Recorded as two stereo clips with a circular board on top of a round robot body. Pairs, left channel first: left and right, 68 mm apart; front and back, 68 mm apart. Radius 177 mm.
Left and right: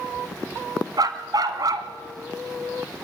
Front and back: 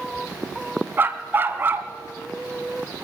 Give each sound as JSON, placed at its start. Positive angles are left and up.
{"t": 1.0, "sound": "a dog barking", "azimuth_deg": -120, "distance_m": 1.5}